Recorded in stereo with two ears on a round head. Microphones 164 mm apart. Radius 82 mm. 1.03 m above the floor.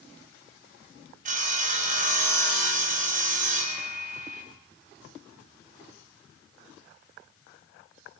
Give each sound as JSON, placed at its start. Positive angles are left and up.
{"t": 1.2, "sound": "sawing", "side_deg": -45, "distance_m": 5.5}